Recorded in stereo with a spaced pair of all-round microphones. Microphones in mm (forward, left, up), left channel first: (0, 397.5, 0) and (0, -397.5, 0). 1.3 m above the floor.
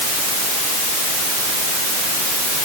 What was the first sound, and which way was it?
Only background noise.